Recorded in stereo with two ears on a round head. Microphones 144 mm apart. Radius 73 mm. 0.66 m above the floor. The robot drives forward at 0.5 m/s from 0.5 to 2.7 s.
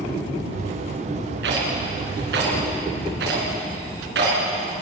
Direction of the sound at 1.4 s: 85° right.